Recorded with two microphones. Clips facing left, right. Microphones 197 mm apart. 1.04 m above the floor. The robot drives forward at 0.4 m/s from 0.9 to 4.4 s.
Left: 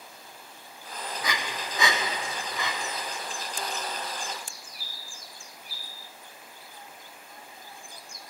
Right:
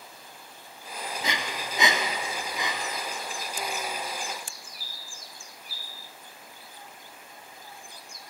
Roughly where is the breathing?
Right.